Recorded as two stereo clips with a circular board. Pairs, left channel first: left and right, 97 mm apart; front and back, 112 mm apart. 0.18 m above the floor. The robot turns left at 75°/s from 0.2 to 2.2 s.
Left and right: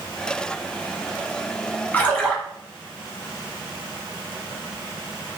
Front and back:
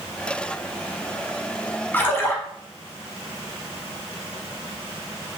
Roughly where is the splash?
Ahead left.